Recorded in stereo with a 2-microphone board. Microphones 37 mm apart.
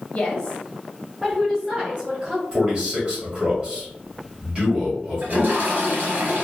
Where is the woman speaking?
30° left (ahead or behind), 1.0 m; by 2.4 s 25° right (ahead or behind), 1.5 m.